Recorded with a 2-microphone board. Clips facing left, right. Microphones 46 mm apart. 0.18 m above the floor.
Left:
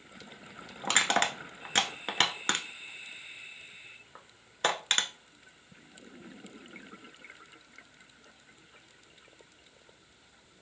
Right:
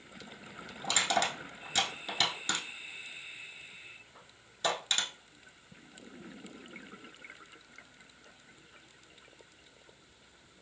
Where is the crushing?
50° left (ahead or behind), 0.6 m.